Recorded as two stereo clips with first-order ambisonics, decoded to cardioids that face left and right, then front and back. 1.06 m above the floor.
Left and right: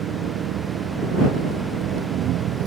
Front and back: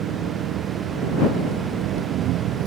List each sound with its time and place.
0.0 s an engine running: 140° right